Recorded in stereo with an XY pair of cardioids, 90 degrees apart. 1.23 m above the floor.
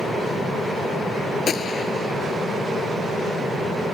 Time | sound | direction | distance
1.5 | a gunshot | 55° left | ?